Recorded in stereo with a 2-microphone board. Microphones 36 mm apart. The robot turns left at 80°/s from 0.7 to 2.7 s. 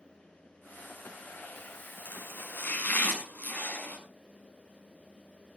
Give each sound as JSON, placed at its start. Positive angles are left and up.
{"t": 2.0, "sound": "chopping", "azimuth_deg": 105, "distance_m": 6.0}